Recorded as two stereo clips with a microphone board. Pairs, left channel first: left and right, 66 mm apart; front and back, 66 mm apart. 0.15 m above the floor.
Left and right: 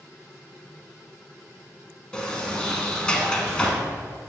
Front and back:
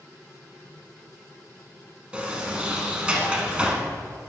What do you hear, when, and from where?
2.1 s a sliding door: 140° left, 1.0 m